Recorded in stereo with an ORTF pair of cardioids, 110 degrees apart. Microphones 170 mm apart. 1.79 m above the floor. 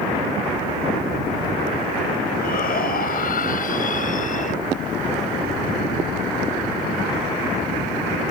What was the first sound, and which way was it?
A shout, 65° left.